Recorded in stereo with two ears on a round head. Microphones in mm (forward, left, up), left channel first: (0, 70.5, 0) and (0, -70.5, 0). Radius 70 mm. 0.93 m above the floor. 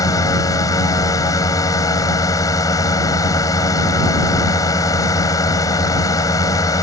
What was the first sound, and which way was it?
A drone, 20° left (ahead or behind).